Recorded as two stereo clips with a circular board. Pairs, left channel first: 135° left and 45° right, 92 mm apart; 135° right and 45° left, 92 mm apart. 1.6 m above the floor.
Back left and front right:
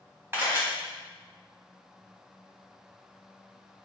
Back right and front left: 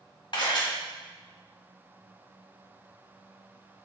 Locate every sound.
0.3 s a camera shutter: 110° right, 1.8 m